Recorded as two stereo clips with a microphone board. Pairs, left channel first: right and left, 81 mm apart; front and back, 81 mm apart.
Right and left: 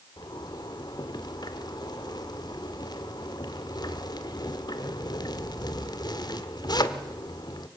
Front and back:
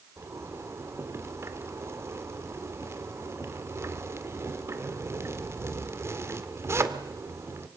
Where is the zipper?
125° right, 1.5 m.